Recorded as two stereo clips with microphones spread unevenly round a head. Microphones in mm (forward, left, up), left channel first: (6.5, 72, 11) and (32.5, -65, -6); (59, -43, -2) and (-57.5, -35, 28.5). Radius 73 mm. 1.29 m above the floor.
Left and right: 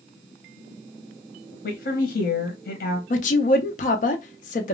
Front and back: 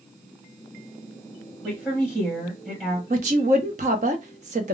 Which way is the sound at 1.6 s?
95° left.